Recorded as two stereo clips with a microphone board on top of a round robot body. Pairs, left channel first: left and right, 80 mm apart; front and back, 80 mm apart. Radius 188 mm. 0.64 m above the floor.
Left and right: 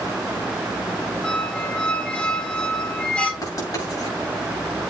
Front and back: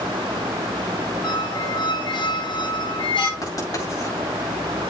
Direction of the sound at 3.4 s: 45° left.